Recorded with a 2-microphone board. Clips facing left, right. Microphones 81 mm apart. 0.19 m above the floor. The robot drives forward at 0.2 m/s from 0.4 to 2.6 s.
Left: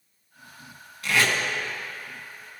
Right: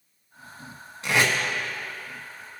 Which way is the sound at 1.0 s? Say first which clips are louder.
Right 1 dB; 25° right (ahead or behind).